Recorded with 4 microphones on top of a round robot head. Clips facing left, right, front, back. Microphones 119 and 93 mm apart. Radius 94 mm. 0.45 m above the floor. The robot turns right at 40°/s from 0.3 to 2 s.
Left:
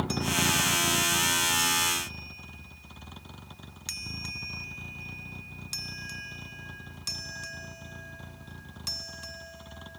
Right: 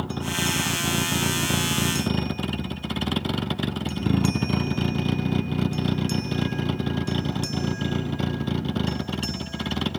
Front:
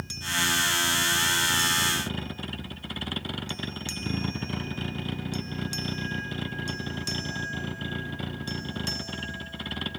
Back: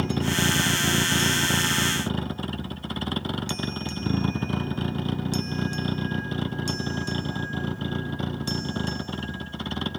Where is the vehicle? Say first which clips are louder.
Right 1 dB, back 7 dB; 175° right; by 10.0 s 105° right.